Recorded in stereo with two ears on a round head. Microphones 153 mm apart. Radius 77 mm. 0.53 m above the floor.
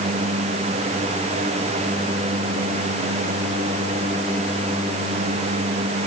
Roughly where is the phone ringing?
I don't hear a phone ringing.